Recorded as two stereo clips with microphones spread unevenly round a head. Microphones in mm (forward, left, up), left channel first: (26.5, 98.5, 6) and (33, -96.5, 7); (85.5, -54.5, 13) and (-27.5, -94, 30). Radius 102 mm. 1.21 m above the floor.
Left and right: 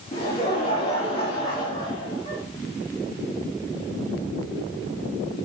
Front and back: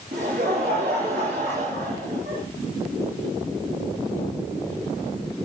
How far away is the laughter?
About 1.8 m.